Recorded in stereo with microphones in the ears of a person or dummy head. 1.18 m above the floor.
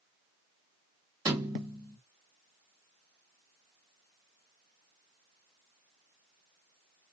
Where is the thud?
25° right (ahead or behind), 1.5 m.